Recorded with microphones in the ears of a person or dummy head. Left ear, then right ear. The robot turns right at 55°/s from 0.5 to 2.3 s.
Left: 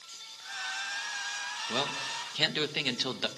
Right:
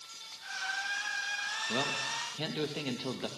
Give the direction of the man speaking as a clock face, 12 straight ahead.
11 o'clock.